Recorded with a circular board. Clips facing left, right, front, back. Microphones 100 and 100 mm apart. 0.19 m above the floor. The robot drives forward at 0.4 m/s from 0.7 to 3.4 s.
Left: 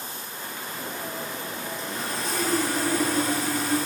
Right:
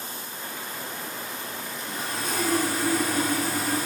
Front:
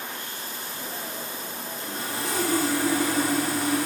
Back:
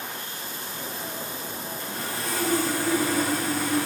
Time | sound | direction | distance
1.8 | sawing | 5° right | 8 m